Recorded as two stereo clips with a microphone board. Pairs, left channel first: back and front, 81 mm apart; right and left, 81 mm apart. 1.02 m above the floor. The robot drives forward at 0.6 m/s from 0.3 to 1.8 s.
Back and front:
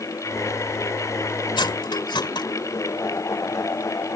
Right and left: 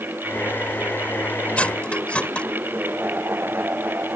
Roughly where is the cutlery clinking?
Behind.